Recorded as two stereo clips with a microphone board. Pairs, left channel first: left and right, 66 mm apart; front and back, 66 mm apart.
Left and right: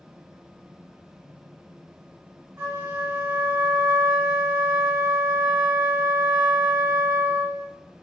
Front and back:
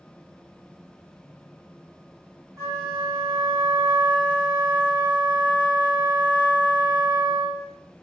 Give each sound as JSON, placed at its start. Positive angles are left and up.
{"t": 2.6, "sound": "a flute", "azimuth_deg": -135, "distance_m": 1.6}